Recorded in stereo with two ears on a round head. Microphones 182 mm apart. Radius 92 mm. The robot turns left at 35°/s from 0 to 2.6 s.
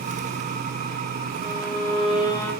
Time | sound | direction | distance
1.4 | a violin | 50° left | 3 m